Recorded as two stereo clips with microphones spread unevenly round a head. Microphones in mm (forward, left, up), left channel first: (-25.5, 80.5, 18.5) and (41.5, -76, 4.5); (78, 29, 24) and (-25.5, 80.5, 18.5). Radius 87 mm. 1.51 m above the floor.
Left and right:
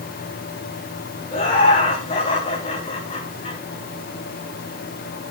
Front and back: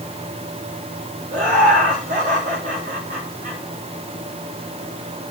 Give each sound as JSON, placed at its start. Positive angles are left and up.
{"t": 1.3, "sound": "laughter", "azimuth_deg": 175, "distance_m": 6.0}